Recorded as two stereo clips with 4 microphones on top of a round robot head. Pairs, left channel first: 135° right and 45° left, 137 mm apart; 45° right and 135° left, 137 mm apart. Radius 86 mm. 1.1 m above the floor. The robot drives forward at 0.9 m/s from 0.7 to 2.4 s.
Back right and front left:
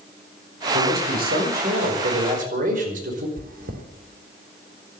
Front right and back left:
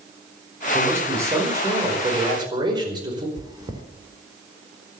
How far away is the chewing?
About 3 m.